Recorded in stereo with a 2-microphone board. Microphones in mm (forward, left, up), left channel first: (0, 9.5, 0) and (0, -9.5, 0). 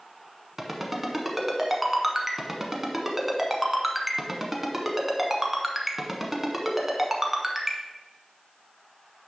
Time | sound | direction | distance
0.6 | a ringtone | 5° right (ahead or behind) | 0.9 m